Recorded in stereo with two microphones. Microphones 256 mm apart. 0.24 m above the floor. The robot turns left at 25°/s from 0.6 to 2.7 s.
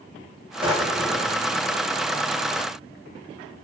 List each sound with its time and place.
0.6 s a drawer: 20° right (ahead or behind), 7 m; by 1.4 s centre (ahead or behind), 7 m